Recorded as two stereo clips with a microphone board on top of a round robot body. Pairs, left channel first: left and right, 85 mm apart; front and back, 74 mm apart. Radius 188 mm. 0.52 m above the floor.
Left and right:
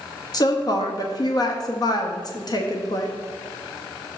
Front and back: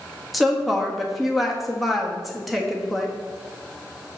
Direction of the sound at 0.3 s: 90° left.